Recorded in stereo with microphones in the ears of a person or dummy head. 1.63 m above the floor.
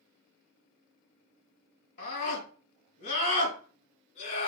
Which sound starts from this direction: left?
A scream, at 2.0 s.